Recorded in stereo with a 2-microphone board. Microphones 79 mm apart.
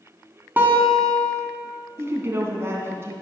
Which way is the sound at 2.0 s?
30° right (ahead or behind).